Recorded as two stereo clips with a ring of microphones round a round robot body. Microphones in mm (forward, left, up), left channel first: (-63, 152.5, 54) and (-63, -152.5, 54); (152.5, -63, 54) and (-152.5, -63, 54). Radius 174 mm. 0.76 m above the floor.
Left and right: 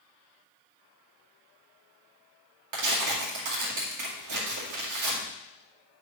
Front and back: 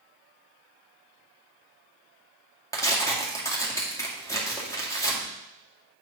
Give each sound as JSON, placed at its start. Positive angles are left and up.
{"t": 2.7, "sound": "tearing paper", "azimuth_deg": -80, "distance_m": 2.0}